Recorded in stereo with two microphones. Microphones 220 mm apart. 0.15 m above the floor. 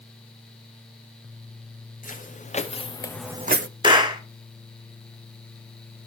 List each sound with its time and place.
2.0 s footsteps: 40° left (ahead or behind), 2 m; by 3.7 s 70° right (ahead or behind), 0.6 m
3.8 s a clap: 20° right (ahead or behind), 1.4 m